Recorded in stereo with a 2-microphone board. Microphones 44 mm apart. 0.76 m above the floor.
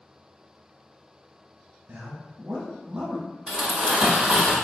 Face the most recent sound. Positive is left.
turn(degrees=-20)  # may be behind; listen again after turning